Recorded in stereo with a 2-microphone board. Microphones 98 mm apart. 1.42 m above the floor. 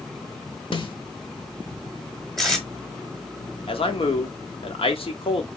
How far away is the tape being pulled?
About 1.3 m.